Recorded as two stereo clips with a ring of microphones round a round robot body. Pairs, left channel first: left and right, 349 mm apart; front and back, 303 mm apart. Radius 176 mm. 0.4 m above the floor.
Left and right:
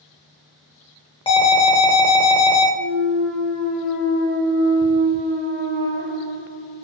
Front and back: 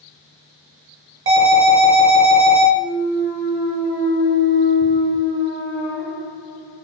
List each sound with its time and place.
1.3 s an alarm: 160° left, 0.5 m
2.8 s a clunk: 20° left, 1.7 m